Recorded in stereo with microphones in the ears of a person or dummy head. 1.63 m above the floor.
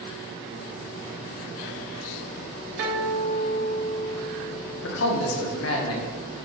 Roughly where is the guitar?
Right.